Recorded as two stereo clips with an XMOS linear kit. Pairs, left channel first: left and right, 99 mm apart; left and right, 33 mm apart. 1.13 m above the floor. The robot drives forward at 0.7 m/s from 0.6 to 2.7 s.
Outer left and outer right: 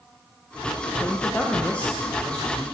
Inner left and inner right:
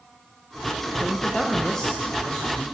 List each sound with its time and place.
1.0 s a man speaking: 20° left (ahead or behind), 0.7 m; by 2.6 s 10° left (ahead or behind), 1.7 m